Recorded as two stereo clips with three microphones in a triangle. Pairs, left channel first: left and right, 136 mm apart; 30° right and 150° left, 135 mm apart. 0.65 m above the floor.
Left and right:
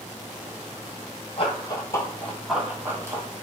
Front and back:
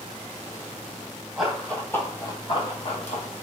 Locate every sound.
1.4 s running footsteps: 65° left, 0.9 m; by 3.4 s 35° right, 1.1 m